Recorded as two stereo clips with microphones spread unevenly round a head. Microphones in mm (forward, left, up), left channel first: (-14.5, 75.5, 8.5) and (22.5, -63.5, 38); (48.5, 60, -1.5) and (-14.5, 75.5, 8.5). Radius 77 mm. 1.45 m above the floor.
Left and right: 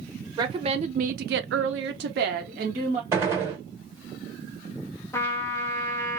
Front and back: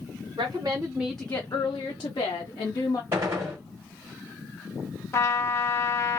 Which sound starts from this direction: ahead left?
A trumpet, at 5.1 s.